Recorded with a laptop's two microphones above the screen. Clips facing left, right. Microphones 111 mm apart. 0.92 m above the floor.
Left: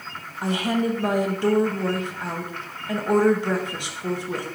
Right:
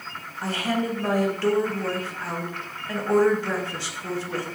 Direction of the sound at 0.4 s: 15° left (ahead or behind).